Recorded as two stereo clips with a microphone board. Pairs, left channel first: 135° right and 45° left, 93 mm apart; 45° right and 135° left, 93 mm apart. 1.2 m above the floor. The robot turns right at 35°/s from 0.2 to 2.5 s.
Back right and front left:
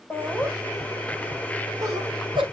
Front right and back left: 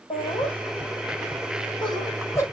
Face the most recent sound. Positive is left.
turn(degrees=15)